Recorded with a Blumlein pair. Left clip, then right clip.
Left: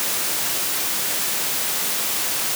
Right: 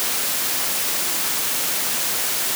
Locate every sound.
Only background noise.